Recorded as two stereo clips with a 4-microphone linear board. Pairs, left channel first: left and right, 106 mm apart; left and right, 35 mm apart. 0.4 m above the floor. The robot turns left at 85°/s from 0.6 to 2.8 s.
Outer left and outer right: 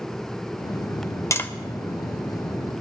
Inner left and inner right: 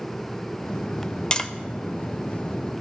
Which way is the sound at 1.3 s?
25° left (ahead or behind).